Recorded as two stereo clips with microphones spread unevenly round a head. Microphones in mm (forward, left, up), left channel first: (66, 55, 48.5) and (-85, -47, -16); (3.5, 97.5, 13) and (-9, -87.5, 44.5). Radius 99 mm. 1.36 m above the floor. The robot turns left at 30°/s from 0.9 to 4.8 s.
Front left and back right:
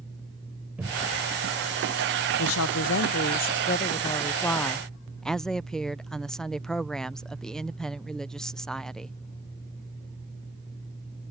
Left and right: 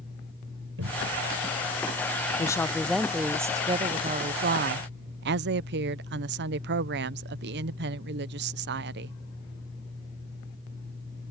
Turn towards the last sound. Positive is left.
turn(degrees=-55)